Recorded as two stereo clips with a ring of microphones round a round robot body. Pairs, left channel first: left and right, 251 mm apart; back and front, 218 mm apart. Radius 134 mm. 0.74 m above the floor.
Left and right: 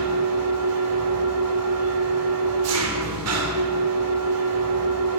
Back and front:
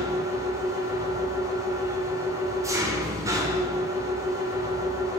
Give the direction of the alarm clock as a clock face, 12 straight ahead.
I don't hear an alarm clock.